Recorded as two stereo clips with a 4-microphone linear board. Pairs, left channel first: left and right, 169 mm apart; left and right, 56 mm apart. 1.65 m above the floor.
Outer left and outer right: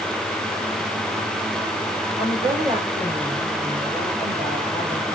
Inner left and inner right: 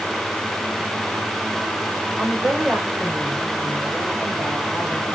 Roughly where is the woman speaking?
Right.